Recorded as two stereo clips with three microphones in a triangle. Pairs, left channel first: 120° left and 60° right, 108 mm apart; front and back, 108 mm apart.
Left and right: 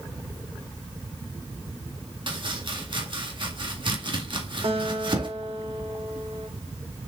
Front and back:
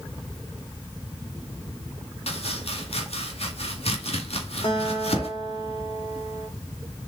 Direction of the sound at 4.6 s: 35° right.